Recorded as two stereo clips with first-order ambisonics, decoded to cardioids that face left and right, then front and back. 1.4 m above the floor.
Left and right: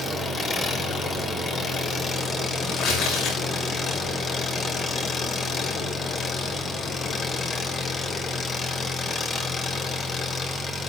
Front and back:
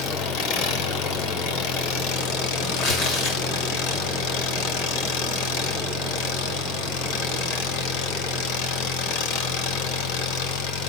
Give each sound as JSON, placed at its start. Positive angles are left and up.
{"t": 0.0, "sound": "an engine running", "azimuth_deg": 15, "distance_m": 2.5}
{"t": 2.6, "sound": "tearing paper", "azimuth_deg": 40, "distance_m": 9.0}